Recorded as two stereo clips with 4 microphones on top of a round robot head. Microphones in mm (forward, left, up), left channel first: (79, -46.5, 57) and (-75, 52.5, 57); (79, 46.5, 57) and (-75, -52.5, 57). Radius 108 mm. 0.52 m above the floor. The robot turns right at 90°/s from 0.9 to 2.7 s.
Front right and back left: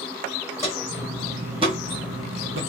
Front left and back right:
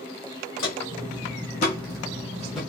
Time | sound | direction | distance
0.6 | footsteps | 40° left | 1.8 m